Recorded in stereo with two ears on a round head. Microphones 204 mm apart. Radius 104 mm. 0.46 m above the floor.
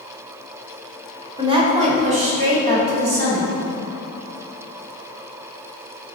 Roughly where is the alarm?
No alarm in this recording.